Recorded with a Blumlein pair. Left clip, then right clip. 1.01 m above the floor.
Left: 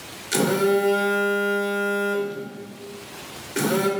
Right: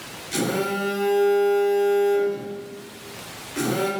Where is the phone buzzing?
60° left, 0.9 m.